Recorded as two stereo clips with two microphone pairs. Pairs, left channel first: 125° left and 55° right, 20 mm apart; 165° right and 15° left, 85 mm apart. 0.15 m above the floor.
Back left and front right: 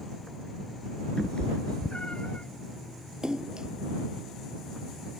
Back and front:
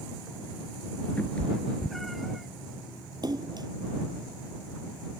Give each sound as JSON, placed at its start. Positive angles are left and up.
{"t": 1.2, "sound": "a cat meowing", "azimuth_deg": 130}
{"t": 3.2, "sound": "a splash", "azimuth_deg": -15}